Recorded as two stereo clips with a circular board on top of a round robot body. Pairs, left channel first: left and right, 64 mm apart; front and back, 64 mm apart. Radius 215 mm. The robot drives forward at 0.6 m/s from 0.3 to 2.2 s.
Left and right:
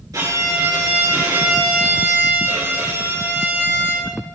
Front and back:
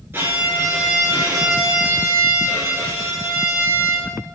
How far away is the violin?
About 6 m.